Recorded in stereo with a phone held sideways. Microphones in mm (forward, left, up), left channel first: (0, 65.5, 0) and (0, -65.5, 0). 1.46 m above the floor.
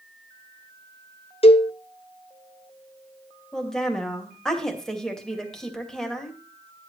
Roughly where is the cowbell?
Left.